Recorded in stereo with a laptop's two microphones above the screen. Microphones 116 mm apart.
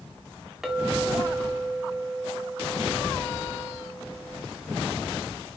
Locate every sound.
0.6 s a clink: 5° right (ahead or behind), 0.8 m